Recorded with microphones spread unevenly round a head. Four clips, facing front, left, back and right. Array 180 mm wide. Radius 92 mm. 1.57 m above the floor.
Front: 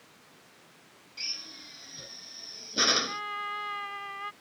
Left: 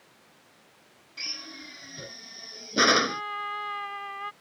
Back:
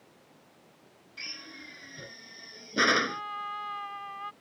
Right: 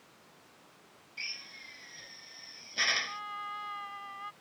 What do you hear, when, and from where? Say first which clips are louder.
1.2 s a drill: left 6 dB, back 3 dB; 105° left
3.1 s a trumpet: left 7 dB, even; 70° left